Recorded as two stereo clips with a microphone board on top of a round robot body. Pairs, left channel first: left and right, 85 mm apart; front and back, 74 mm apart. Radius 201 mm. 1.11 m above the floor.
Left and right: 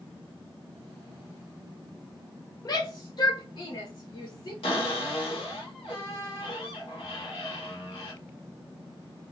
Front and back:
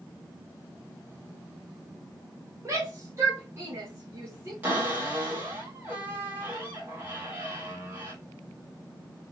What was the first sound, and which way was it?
A shout, 135° left.